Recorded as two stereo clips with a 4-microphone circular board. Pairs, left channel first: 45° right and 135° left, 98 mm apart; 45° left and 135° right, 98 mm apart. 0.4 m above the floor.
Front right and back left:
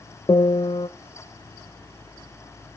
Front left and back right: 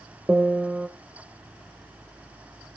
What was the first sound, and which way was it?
A piano, 65° right.